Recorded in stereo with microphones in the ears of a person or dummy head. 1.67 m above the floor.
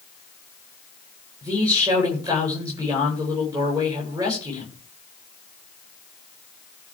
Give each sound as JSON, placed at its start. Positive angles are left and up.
{"t": 1.4, "sound": "a man speaking", "side_deg": -15, "distance_m": 8.0}